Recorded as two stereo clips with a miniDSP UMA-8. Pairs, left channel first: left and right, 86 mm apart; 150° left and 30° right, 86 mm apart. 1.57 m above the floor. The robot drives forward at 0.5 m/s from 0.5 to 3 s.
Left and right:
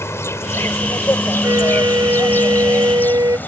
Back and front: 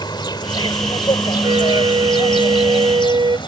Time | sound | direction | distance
0.0 | an insect | 140° left | ?
1.4 | a flute | 45° right | ?